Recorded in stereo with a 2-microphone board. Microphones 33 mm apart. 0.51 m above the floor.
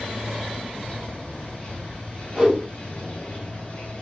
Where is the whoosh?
15° right (ahead or behind), 1.1 m.